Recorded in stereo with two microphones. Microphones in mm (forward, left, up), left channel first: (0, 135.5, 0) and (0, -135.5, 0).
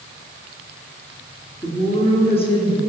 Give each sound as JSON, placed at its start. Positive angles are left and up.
{"t": 1.6, "sound": "a woman speaking", "side_deg": 20, "distance_m": 3.0}